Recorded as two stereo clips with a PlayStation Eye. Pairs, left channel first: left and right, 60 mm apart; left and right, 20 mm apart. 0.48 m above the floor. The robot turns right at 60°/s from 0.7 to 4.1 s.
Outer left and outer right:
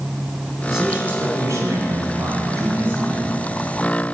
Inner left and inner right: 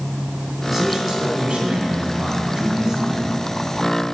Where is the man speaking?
170° right, 3 m; by 3.3 s 15° right, 3 m.